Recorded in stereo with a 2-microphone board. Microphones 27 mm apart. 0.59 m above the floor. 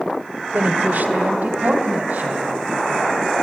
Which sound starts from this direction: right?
A woman speaking, at 0.5 s.